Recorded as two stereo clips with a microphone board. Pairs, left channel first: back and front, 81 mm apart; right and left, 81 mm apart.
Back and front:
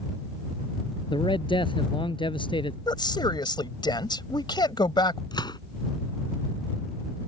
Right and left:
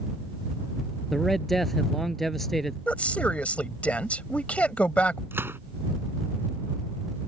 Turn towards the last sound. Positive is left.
turn(degrees=150)